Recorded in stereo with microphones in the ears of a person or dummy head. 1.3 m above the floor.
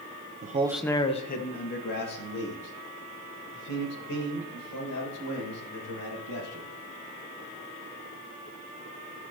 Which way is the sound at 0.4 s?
40° right (ahead or behind).